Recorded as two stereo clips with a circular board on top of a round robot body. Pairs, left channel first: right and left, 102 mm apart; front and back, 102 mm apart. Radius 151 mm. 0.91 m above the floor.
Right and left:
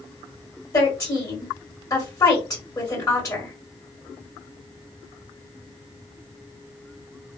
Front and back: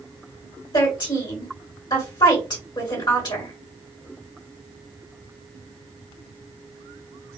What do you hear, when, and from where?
0.7 s a woman speaking: 35° right, 1.8 m